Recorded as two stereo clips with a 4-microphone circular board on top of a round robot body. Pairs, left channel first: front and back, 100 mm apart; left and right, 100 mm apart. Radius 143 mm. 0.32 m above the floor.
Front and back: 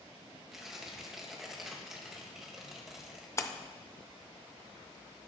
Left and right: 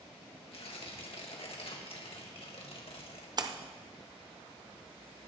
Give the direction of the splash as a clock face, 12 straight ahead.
2 o'clock.